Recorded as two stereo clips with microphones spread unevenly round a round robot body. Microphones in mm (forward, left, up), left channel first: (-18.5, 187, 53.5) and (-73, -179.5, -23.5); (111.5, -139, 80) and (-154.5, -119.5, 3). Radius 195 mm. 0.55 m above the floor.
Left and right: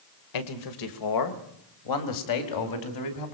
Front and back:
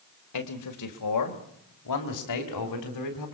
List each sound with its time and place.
0.3 s a man speaking: 40° left, 2 m; by 3.4 s 35° left, 4 m